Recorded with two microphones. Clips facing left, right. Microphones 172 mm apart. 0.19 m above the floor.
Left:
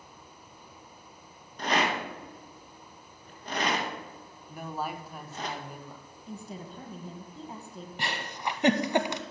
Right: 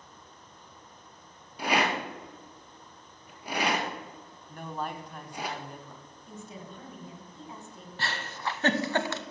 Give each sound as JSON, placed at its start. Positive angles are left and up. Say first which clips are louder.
{"t": 1.6, "sound": "a rattle", "louder": "right 1 dB", "side_deg": -10, "distance_m": 1.6}
{"t": 4.5, "sound": "a man speaking", "louder": "left 1 dB", "side_deg": 5, "distance_m": 1.0}
{"t": 6.3, "sound": "a woman speaking", "louder": "left 3 dB", "side_deg": 35, "distance_m": 1.6}
{"t": 8.0, "sound": "a giggle", "louder": "left 1 dB", "side_deg": 15, "distance_m": 0.6}